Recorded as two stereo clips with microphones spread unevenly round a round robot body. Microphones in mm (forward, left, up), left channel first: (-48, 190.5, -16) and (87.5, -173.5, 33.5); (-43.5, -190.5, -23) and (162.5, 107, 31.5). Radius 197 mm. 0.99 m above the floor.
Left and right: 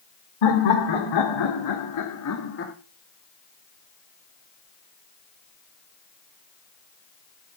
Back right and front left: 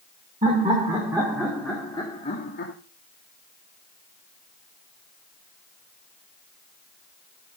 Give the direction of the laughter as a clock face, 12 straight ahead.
8 o'clock.